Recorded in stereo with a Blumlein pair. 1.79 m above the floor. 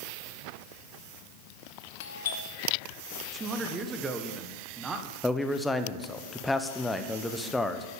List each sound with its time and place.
2.0 s a doorbell: 60° left, 1.5 m
3.3 s a man speaking: 15° right, 1.4 m
5.2 s a man speaking: 5° left, 1.0 m